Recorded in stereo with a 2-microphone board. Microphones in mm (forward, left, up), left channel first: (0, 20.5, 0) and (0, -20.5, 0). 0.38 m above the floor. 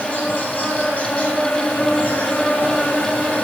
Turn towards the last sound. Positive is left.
turn(degrees=40)  # may be behind; listen again after turning